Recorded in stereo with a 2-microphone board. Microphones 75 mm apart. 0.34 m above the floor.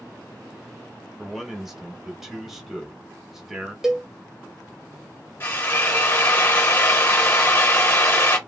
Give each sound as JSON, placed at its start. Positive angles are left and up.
{"t": 1.2, "sound": "a man speaking", "side_deg": -5, "distance_m": 1.5}
{"t": 3.8, "sound": "a cowbell", "side_deg": -5, "distance_m": 0.7}
{"t": 5.4, "sound": "a drill", "side_deg": 30, "distance_m": 1.5}